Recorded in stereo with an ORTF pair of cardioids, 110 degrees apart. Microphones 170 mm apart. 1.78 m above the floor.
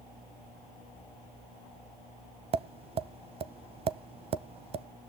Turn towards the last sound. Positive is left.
turn(degrees=-35)